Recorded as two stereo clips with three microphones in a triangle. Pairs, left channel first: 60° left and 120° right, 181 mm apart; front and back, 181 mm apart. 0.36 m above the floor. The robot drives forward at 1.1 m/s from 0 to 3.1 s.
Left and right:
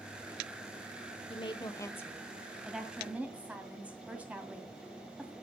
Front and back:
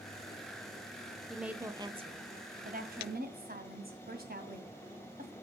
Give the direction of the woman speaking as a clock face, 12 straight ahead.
9 o'clock.